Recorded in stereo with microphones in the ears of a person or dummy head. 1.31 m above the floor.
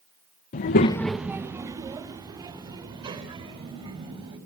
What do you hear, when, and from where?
0.5 s a child speaking: 40° left (ahead or behind), 0.6 m; by 4.4 s 25° right (ahead or behind), 5.5 m